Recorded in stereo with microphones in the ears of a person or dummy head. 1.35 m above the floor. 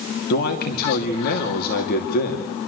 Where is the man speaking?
45° left (ahead or behind), 2.5 m.